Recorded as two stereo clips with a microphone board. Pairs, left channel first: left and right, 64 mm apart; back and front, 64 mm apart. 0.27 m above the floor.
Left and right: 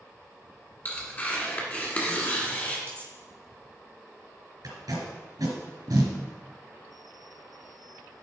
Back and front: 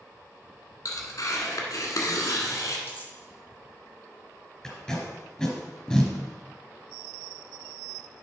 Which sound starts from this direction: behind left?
Tearing paper, at 0.8 s.